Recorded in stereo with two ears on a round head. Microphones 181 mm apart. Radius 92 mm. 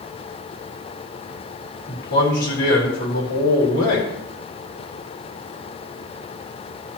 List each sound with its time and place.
1.9 s a man speaking: 60° left (ahead or behind), 3.5 m